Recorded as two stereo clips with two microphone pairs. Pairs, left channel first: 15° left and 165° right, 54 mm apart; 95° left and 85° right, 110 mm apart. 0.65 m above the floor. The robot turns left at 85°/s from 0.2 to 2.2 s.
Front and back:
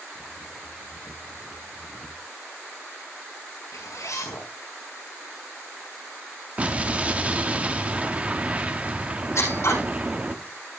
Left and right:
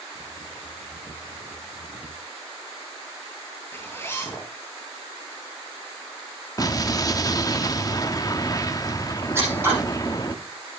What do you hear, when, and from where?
3.7 s a zipper: 25° left, 5 m
6.6 s an explosion: 140° left, 1.1 m
9.3 s scissors: 15° right, 9.5 m